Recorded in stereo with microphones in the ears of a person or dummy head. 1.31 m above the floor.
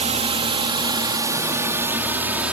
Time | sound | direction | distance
0.0 | a drone | 30° right (ahead or behind) | ?